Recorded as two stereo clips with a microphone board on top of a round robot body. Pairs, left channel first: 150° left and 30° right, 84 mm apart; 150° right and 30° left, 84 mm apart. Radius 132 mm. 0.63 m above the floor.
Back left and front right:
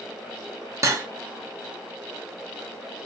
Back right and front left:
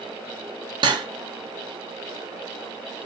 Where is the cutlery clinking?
20° left, 0.5 m.